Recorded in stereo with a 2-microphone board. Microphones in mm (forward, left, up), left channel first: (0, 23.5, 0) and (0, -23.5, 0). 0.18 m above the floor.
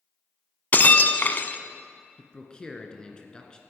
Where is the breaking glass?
40° left (ahead or behind), 0.6 m.